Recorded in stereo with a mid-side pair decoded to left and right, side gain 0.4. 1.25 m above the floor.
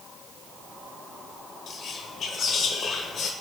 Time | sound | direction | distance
1.7 | whispering | 65° left | 0.5 m